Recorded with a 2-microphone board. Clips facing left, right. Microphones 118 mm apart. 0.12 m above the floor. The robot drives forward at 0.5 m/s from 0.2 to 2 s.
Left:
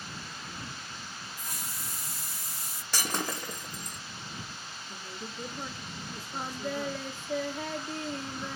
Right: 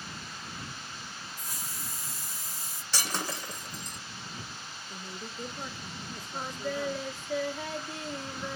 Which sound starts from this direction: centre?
A woman speaking, at 4.9 s.